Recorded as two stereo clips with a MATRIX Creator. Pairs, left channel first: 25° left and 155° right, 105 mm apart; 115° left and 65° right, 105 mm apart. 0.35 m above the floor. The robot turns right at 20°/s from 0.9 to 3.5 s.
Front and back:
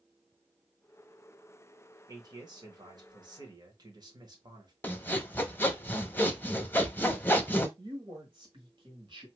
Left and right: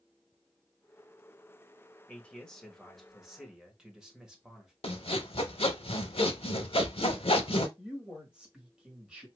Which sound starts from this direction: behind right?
A man speaking, at 7.8 s.